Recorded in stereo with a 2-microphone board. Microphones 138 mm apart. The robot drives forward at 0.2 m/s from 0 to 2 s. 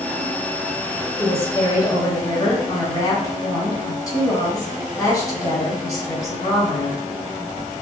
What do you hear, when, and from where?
1.2 s a woman speaking: 25° left (ahead or behind), 1.0 m